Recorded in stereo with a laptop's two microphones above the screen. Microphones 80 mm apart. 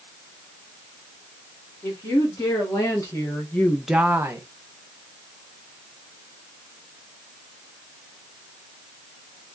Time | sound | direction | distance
1.8 | a woman speaking | 45° left (ahead or behind) | 2 m